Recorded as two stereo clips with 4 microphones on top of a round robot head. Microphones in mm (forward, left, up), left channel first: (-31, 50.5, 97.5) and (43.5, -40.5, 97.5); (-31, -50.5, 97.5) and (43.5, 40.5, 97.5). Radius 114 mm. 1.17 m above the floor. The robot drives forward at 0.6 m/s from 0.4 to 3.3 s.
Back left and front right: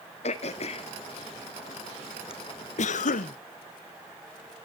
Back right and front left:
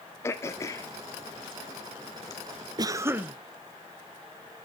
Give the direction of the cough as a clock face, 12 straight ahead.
8 o'clock.